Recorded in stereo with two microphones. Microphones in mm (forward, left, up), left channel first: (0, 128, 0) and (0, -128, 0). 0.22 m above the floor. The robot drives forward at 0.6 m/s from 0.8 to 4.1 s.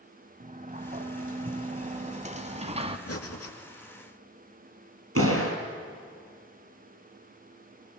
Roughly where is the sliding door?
Right.